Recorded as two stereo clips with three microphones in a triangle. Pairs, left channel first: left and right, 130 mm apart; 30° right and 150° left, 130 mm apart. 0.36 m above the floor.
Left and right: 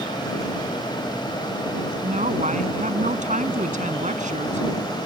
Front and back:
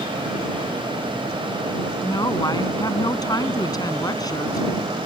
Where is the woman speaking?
90° right.